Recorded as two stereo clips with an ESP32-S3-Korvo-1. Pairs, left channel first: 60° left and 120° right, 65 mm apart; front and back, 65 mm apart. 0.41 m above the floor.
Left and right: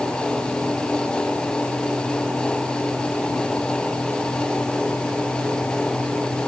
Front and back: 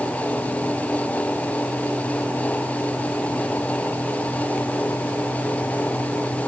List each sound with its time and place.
Only background noise.